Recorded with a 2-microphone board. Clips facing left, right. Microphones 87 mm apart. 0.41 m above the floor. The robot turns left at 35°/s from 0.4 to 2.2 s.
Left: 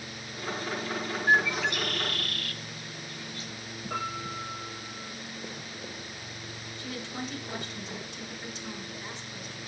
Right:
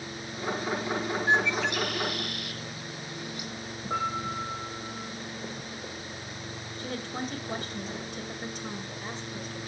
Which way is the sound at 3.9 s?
25° right (ahead or behind).